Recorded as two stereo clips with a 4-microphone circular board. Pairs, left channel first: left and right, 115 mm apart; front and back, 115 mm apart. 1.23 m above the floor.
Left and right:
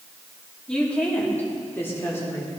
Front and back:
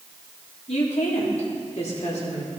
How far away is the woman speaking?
About 3 m.